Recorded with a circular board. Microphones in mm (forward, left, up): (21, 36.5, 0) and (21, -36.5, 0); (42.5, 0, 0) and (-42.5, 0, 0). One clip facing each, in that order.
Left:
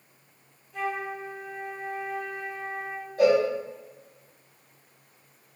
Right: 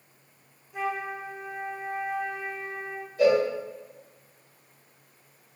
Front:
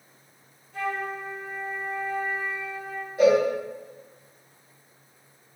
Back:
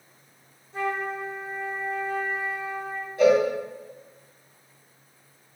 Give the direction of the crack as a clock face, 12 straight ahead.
I don't hear a crack.